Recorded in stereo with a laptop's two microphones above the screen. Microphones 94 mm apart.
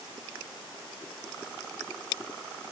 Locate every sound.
Only background noise.